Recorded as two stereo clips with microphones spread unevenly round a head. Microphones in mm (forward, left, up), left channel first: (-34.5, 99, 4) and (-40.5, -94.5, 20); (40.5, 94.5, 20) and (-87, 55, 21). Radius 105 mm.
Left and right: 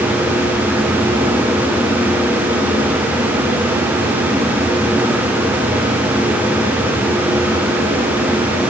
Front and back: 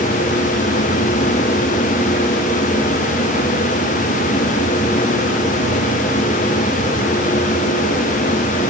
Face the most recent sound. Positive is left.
No sound to turn to.